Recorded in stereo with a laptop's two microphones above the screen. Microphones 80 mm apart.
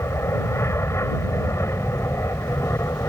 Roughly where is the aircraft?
Left.